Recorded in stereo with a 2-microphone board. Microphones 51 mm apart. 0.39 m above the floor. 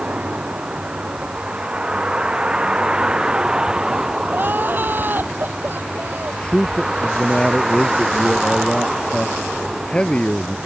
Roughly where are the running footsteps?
I don't hear running footsteps.